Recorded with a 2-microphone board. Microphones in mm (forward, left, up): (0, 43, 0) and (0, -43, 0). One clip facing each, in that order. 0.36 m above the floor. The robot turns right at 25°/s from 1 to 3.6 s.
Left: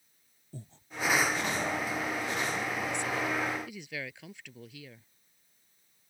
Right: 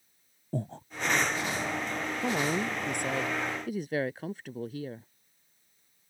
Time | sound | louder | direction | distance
0.5 | breathing | right 14 dB | 65° right (ahead or behind) | ?
2.2 | a woman speaking | right 4 dB | 75° right | ?